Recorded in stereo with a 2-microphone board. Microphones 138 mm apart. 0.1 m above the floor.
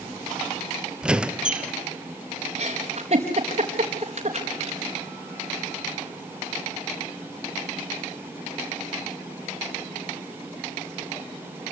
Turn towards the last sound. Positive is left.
turn(degrees=-45)  # may be behind; listen again after turning